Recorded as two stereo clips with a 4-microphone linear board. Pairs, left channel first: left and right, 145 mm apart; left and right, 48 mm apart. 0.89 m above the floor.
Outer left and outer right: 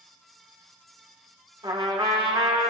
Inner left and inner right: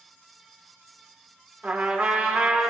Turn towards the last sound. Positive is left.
turn(degrees=-35)  # may be behind; listen again after turning